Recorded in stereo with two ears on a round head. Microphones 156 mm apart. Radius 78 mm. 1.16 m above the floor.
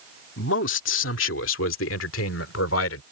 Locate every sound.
0.4 s a man speaking: 80° left; by 3.0 s 85° left